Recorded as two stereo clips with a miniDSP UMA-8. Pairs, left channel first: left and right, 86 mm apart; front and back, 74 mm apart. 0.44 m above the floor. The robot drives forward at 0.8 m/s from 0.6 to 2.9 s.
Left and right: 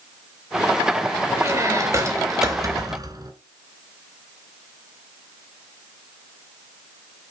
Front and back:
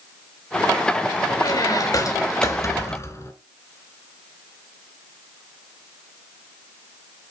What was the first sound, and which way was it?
A squeak, 35° right.